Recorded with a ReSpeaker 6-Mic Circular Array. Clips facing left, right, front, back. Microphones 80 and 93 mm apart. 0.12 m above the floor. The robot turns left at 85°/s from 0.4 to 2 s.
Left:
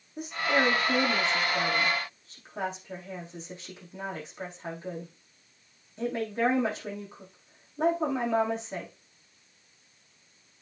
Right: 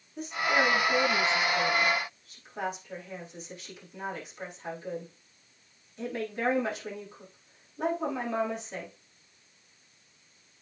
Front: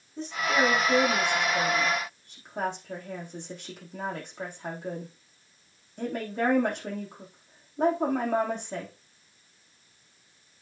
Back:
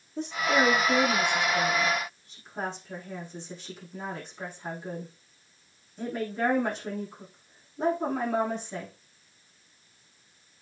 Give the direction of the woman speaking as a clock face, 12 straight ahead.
6 o'clock.